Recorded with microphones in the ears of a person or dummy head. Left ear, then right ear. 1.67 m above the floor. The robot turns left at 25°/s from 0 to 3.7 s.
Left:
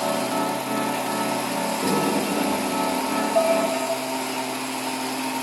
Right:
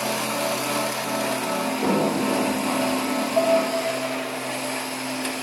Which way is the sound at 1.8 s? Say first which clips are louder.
Right 1 dB; 10° right (ahead or behind).